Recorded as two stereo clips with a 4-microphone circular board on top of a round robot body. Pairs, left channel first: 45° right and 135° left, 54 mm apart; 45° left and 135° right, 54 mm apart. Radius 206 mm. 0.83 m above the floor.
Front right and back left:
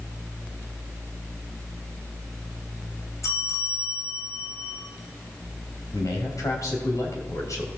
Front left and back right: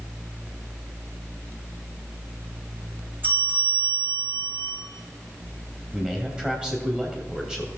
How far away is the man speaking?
About 3 m.